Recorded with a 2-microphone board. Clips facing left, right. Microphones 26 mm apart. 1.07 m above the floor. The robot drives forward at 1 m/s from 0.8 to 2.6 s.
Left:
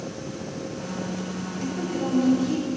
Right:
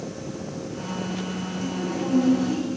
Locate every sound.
1.6 s a woman speaking: 20° left (ahead or behind), 1.1 m; by 2.7 s 10° left (ahead or behind), 2 m